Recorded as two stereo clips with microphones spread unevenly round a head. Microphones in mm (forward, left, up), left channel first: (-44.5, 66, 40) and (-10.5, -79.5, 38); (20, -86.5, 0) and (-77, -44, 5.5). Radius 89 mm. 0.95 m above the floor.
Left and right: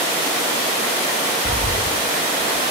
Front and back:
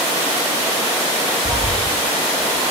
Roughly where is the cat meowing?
Left.